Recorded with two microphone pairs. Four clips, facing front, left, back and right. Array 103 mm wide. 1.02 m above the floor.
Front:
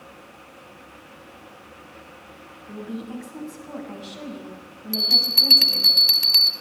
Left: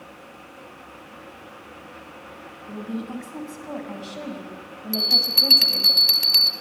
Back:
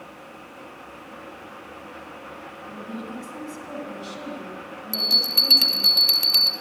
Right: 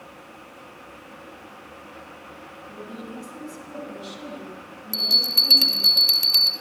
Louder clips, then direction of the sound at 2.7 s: Left 7 dB, front 2 dB; 100° left.